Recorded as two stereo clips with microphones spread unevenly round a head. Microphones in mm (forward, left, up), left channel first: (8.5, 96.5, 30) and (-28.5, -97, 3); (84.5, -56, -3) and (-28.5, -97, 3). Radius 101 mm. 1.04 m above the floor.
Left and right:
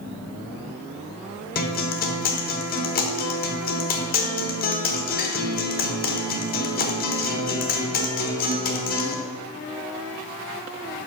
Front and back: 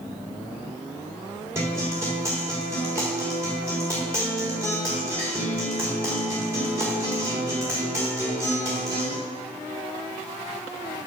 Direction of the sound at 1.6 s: 125° left.